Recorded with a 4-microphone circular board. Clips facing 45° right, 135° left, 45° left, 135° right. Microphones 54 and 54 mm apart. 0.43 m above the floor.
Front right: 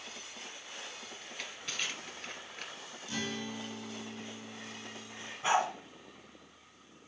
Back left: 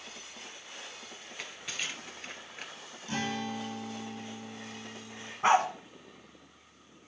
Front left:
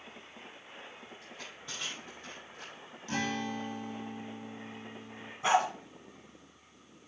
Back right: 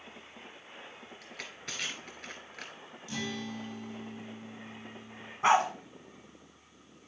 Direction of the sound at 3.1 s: 85° left.